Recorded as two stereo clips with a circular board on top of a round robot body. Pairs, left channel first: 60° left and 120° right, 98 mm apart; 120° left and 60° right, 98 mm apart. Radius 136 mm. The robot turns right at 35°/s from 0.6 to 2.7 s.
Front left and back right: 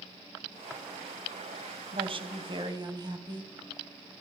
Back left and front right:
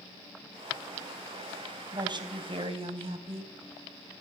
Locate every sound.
1.9 s a woman speaking: 105° right, 4 m; by 3.5 s 80° right, 4 m